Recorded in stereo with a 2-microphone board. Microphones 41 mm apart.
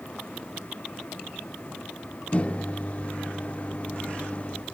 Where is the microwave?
35° left (ahead or behind), 0.6 m.